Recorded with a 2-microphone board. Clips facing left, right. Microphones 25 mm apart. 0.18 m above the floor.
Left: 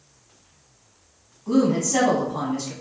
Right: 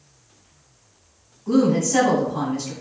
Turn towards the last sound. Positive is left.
turn(degrees=5)  # may be behind; listen again after turning